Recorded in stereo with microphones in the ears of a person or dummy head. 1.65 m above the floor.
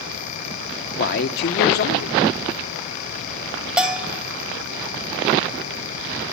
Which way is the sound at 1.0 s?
65° left (ahead or behind).